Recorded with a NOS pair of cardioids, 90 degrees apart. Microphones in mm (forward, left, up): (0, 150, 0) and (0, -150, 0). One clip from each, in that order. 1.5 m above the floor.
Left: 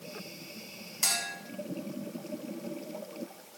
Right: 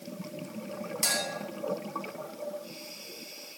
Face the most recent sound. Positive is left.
turn(degrees=10)